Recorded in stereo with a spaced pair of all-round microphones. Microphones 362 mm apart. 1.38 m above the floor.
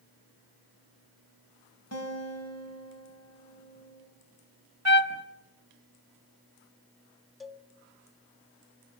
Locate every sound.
1.9 s a guitar: 45° left (ahead or behind), 4.5 m
4.8 s a trumpet: 45° right (ahead or behind), 1.0 m
7.4 s a cowbell: centre (ahead or behind), 1.5 m